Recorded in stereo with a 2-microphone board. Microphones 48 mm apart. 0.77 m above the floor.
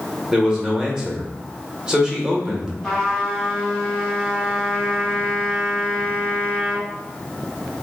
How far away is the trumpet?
About 1.2 m.